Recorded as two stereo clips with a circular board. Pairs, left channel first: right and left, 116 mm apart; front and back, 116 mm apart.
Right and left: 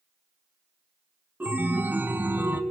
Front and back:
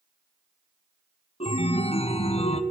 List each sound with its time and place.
1.4 s a chime: 15° left, 0.6 m